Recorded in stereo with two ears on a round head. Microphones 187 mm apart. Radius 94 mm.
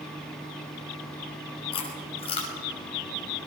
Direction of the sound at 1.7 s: 25° left (ahead or behind).